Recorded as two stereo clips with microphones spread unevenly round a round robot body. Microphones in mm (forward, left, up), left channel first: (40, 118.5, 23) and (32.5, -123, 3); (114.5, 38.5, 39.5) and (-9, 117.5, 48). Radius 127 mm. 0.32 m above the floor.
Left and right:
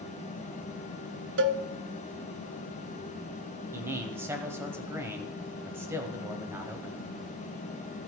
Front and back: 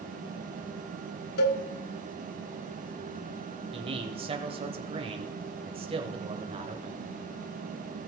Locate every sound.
1.4 s a cowbell: 50° right, 0.8 m
3.7 s a man speaking: 165° right, 1.4 m